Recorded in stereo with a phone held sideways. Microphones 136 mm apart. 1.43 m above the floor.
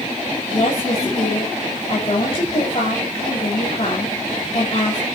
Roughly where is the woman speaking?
Left.